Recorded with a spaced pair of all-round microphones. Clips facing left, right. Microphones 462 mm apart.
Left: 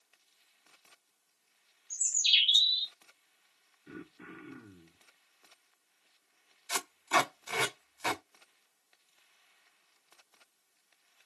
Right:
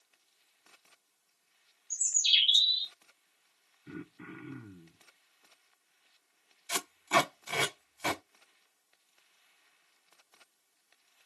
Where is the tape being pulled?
50° right (ahead or behind), 1.7 m.